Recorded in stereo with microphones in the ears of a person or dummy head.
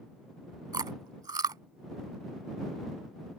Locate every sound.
0.7 s chewing: 20° right (ahead or behind)